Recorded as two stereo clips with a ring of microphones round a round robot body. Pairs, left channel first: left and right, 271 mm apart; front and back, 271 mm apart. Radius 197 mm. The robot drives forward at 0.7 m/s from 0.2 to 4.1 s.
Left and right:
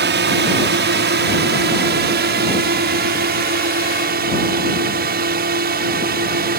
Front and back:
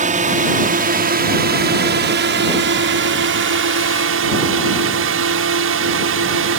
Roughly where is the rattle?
No rattle in this recording.